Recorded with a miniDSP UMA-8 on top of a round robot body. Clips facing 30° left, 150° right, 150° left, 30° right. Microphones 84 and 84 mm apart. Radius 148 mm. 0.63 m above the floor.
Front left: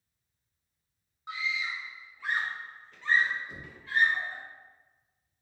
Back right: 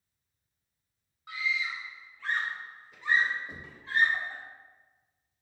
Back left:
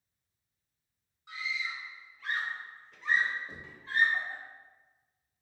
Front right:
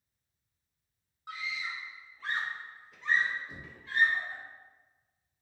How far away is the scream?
About 1.2 m.